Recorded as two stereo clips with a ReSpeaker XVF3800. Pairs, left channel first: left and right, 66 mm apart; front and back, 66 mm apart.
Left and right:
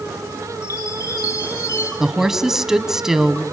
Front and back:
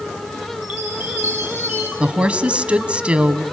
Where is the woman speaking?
160° right, 1.3 m.